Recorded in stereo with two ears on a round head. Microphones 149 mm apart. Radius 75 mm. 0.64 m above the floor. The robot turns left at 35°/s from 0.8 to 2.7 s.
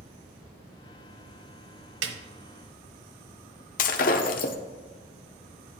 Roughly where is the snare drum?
Right.